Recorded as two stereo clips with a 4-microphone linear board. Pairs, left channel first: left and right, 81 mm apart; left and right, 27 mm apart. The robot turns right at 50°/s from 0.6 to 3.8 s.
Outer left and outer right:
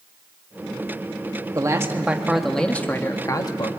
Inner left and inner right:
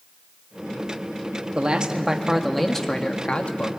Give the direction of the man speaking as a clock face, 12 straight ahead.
1 o'clock.